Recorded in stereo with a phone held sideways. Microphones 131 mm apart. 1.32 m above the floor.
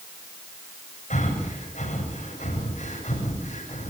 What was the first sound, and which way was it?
Breathing, 70° left (ahead or behind).